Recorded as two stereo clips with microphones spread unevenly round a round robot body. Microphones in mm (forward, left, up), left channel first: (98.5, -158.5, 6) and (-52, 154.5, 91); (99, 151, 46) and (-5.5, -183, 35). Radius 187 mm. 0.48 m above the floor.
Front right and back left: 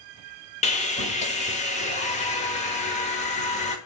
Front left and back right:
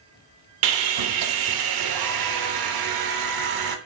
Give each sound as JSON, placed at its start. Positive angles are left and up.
{"t": 0.6, "sound": "sawing", "azimuth_deg": -130, "distance_m": 1.0}